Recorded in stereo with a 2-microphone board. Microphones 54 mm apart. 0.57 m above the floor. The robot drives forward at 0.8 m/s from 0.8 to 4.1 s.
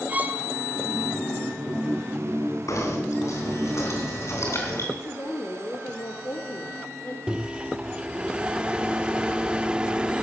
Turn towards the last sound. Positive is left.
turn(degrees=-20)  # may be behind; listen again after turning